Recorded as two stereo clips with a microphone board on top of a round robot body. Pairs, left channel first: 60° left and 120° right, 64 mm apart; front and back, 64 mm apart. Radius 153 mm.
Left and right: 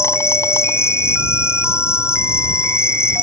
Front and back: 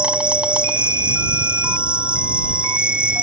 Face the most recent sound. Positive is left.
turn(degrees=105)